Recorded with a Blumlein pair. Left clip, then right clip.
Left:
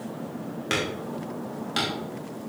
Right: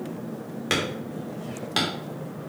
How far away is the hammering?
About 2.5 m.